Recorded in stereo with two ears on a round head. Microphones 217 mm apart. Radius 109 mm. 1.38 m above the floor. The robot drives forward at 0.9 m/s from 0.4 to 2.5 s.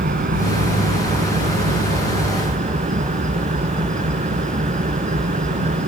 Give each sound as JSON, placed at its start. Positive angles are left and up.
{"t": 0.0, "sound": "an engine running", "side_deg": -40}